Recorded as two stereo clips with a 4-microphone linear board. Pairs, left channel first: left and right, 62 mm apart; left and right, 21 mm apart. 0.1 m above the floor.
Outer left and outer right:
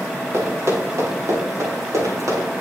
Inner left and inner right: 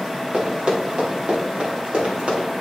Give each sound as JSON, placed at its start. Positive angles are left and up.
{"t": 0.3, "sound": "running footsteps", "side_deg": -45, "distance_m": 5.5}